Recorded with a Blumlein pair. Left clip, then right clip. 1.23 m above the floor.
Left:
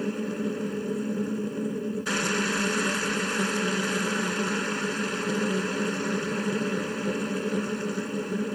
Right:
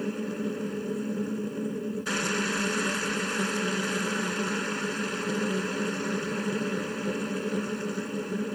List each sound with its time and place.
0.0 s a machine running: 10° left